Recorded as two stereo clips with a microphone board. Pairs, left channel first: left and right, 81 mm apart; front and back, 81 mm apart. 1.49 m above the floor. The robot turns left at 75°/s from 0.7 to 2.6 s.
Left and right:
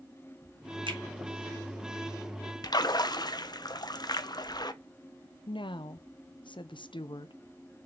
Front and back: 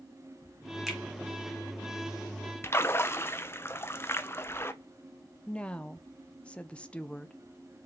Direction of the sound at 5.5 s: 75° left.